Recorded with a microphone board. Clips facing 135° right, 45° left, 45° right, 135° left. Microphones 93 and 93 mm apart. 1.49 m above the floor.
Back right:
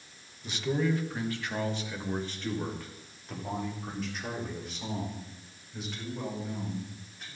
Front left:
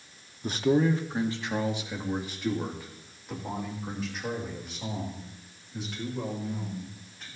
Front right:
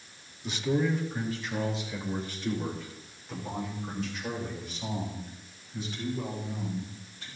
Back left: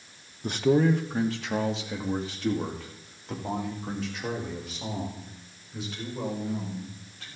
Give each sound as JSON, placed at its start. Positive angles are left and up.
{"t": 0.4, "sound": "a man speaking", "azimuth_deg": 90, "distance_m": 1.0}